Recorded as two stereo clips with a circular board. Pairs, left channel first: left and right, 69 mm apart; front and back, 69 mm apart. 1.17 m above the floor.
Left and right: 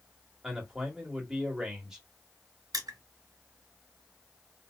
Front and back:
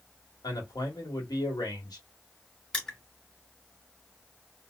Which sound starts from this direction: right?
Crushing, at 2.7 s.